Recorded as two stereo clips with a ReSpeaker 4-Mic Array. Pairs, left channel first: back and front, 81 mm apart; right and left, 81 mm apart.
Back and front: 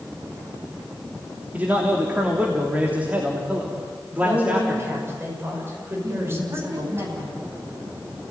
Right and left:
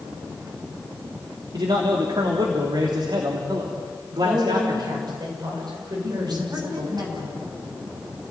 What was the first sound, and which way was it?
A man speaking, 70° left.